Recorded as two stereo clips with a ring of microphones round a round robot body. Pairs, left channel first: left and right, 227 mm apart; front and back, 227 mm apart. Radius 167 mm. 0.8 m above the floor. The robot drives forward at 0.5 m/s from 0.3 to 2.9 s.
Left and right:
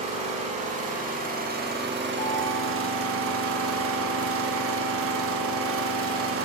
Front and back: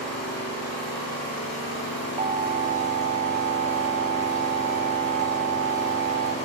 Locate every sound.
0.0 s an engine running: 30° right, 1.9 m; by 6.5 s 70° right, 1.0 m
2.2 s an alarm: 135° left, 0.6 m; by 6.3 s 160° left, 0.8 m